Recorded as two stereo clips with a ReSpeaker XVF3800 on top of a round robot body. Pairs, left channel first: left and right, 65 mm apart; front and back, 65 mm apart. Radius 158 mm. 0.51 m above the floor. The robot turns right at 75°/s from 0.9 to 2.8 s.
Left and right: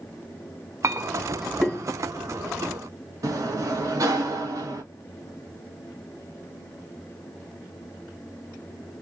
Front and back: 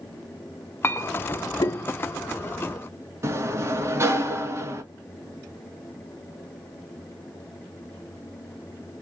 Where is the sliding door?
130° right, 1.2 m.